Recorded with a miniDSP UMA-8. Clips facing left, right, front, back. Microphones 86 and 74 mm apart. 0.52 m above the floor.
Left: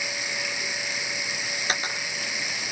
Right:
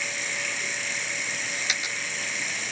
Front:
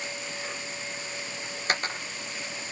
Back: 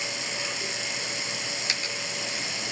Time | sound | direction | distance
0.0 | running water | 170° left | ?
1.7 | a dropped coin | 40° left | ?